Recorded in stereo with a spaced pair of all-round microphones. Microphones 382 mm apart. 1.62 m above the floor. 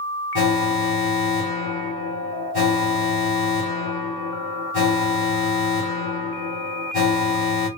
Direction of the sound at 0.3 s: 70° left (ahead or behind).